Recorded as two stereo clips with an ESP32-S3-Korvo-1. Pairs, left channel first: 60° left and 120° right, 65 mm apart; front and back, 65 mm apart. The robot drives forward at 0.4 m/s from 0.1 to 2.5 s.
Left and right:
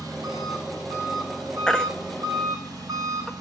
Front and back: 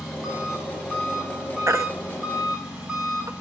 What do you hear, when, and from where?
0.0 s an engine running: 90° right, 7 m; by 3.4 s 100° right, 7 m
1.7 s a baby crying: 135° left, 0.6 m; by 3.3 s 150° left, 0.9 m